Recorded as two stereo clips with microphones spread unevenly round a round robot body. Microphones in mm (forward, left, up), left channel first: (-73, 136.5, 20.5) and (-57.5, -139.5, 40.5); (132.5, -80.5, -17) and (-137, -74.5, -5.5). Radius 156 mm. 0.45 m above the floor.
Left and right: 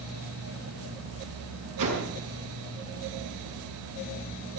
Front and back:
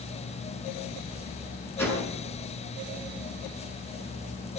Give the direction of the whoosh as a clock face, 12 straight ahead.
3 o'clock.